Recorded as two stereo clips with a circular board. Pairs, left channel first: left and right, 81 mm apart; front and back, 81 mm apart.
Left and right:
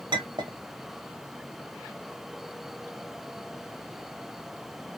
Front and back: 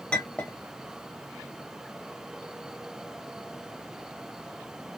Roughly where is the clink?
Right.